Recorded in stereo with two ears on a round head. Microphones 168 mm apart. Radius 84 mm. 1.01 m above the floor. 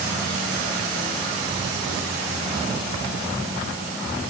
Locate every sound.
Only background noise.